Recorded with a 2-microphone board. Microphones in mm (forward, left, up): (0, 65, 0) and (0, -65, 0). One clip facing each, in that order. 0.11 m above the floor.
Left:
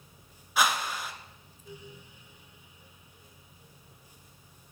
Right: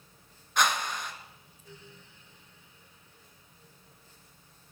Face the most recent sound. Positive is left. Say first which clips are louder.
# even
turn(degrees=5)  # may be behind; listen again after turning